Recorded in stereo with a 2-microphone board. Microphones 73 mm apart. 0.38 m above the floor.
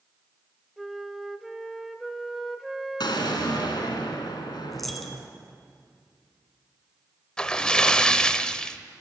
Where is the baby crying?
I don't hear a baby crying.